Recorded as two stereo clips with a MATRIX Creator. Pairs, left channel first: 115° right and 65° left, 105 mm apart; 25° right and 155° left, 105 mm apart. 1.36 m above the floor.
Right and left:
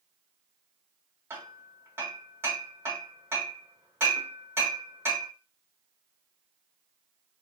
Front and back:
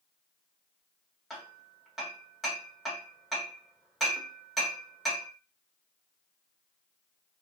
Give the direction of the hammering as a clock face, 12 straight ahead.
10 o'clock.